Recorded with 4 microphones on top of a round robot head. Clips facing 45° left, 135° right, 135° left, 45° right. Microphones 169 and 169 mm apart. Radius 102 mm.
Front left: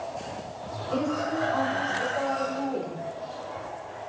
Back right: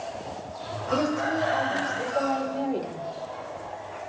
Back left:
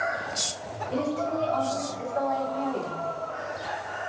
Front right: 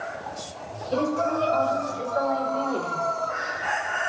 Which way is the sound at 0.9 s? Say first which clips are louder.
Back right 2 dB, front right 3 dB; 85° right.